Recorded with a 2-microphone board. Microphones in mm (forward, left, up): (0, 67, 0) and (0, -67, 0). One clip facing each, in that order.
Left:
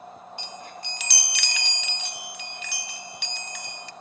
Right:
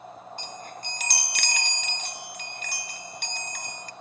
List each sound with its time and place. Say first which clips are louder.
0.4 s a chime: even; 45° right (ahead or behind), 0.6 m